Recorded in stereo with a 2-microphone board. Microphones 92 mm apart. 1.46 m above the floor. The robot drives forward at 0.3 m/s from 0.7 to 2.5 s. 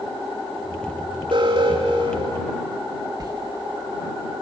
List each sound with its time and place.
1.3 s an alarm: 60° right (ahead or behind), 4.5 m; by 2.5 s 55° right (ahead or behind), 4.5 m
3.2 s a sliding door: 40° right (ahead or behind), 1.6 m